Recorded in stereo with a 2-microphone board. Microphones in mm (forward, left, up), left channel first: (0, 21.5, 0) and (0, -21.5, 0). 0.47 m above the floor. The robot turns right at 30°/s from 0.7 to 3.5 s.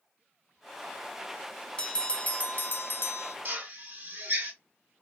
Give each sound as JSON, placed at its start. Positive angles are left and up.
{"t": 1.8, "sound": "a bell", "azimuth_deg": 25, "distance_m": 0.6}
{"t": 3.5, "sound": "a drill", "side_deg": -50, "distance_m": 1.5}